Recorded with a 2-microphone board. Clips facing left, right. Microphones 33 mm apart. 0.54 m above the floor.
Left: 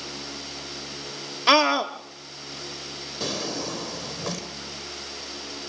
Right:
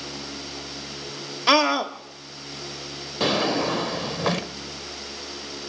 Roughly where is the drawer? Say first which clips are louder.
Right 8 dB; right.